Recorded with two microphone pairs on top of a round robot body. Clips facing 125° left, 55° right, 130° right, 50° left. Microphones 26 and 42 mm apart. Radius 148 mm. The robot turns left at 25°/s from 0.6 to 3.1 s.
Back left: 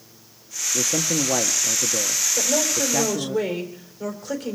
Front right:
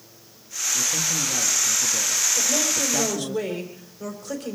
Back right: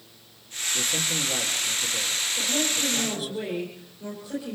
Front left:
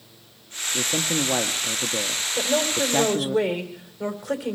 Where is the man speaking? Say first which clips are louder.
Back left 2 dB, front left 4 dB; 105° left, 1.2 m; by 3.4 s 45° left, 1.2 m.